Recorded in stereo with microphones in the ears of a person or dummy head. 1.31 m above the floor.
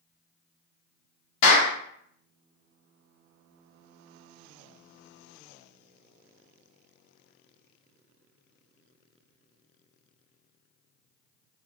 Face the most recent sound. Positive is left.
turn(degrees=45)  # may be behind; listen again after turning